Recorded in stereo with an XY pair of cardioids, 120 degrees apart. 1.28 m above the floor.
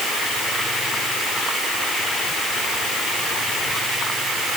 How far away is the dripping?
I don't hear dripping.